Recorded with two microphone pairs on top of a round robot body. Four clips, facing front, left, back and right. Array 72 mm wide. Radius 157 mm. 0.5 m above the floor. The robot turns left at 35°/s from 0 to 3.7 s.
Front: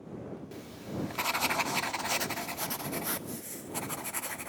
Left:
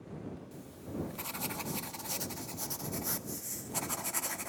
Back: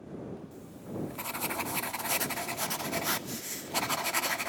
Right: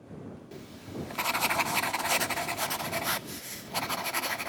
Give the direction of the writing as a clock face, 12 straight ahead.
1 o'clock.